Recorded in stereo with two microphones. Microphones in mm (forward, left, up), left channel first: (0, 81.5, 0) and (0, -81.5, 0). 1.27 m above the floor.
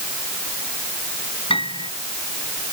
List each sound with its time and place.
1.5 s a piano: 35° left (ahead or behind)